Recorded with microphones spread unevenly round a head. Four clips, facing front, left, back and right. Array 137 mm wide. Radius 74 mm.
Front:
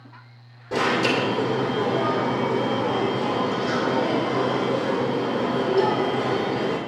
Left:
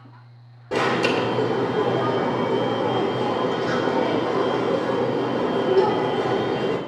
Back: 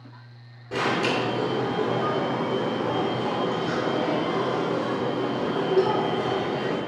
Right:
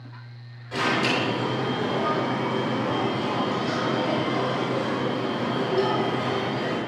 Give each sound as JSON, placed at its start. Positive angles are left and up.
{"t": 0.7, "sound": "an alarm", "azimuth_deg": 75, "distance_m": 2.5}